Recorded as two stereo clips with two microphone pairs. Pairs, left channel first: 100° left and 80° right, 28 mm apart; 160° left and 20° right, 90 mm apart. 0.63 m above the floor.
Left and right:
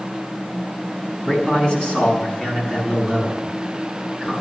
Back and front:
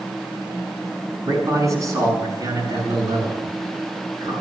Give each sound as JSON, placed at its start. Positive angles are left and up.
{"t": 1.3, "sound": "a man speaking", "azimuth_deg": 35, "distance_m": 5.5}